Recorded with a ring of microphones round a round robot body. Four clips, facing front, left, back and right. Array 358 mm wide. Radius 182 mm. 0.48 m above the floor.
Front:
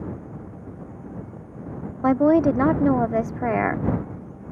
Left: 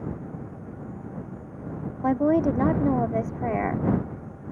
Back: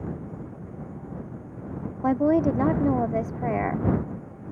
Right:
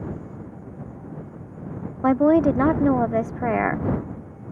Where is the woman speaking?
50° right.